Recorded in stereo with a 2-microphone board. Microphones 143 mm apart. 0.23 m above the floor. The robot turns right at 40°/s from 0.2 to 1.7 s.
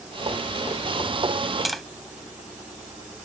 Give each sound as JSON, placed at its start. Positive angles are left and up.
{"t": 1.6, "sound": "tapping", "side_deg": 0}